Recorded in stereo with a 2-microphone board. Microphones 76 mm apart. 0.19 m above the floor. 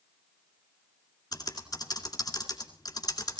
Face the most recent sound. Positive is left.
turn(degrees=55)  # may be behind; listen again after turning